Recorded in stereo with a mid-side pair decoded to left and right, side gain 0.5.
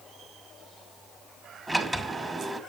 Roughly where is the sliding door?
Ahead.